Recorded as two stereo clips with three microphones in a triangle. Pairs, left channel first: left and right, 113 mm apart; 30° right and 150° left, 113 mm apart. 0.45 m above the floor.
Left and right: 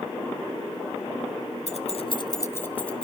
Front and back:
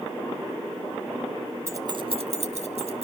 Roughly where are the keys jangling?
Left.